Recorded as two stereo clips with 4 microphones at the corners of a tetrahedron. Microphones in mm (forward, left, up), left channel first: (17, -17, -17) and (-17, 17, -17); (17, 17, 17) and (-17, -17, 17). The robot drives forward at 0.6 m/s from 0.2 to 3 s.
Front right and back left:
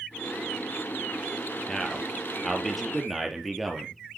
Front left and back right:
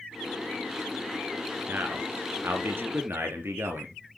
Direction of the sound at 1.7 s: 120° right.